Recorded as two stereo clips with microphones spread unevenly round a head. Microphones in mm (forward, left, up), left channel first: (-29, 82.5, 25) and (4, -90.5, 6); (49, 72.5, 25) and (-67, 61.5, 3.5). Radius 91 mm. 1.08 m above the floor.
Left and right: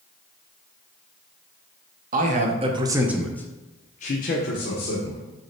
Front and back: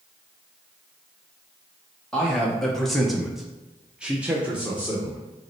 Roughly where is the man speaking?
Right.